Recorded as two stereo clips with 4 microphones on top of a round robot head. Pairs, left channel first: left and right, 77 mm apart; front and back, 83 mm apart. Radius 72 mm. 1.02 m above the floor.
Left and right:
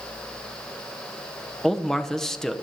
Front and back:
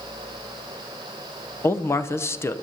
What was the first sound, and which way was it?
A man speaking, 15° left.